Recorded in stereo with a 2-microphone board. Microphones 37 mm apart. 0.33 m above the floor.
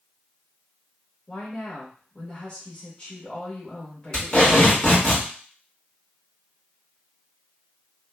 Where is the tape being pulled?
20° left (ahead or behind), 1.8 m.